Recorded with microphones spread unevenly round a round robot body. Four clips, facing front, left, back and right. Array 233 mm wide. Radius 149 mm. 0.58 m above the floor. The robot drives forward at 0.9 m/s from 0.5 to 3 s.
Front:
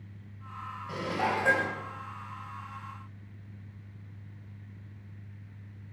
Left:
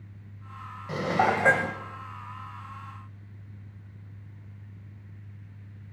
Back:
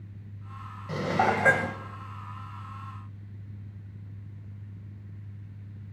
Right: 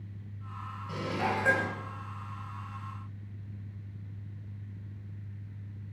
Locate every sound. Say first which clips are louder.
0.9 s dishes clattering: left 8 dB, back 5 dB; 90° left, 2 m; by 1.8 s 110° left, 2.5 m